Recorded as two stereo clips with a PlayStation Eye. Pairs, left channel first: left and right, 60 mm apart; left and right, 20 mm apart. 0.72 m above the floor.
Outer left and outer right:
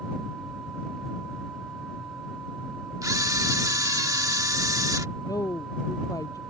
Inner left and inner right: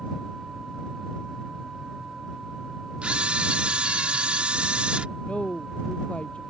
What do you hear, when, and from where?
3.0 s a camera shutter: 70° right (ahead or behind)
5.2 s a woman speaking: 75° left (ahead or behind)